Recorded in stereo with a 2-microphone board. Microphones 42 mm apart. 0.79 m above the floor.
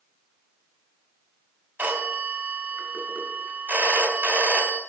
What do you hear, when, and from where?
1.8 s a phone ringing: 50° right (ahead or behind), 1.9 m